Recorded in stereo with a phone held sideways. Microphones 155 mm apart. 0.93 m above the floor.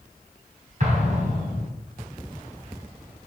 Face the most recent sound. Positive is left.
turn(degrees=-55)  # may be behind; listen again after turning